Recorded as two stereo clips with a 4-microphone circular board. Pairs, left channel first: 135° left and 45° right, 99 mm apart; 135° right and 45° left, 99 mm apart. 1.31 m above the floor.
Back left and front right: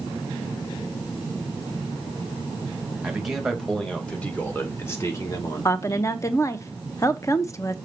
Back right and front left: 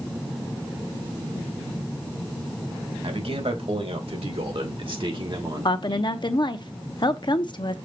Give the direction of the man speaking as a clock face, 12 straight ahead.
11 o'clock.